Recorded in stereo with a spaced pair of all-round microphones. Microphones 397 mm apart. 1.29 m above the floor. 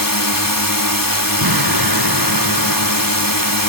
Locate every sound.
0.0 s a drone: 55° left (ahead or behind)
1.4 s an explosion: 65° right (ahead or behind)